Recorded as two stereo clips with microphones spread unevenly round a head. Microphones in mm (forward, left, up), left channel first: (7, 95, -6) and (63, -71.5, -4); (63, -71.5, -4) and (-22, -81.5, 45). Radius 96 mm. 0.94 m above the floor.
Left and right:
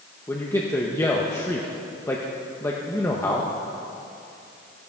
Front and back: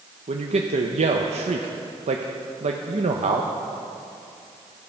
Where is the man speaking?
Straight behind, 0.7 m.